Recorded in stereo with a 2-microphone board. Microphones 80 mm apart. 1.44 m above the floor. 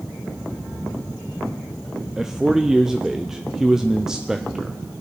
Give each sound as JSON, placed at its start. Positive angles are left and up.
{"t": 2.2, "sound": "a man speaking", "side_deg": -5, "distance_m": 0.6}